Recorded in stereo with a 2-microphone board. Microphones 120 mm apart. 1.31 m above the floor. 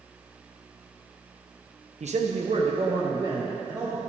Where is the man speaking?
65° right (ahead or behind), 1.0 m; by 4.0 s 30° right (ahead or behind), 2.5 m.